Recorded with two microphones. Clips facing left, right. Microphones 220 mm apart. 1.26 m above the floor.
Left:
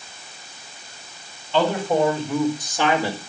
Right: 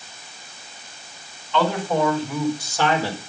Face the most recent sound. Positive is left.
turn(degrees=10)  # may be behind; listen again after turning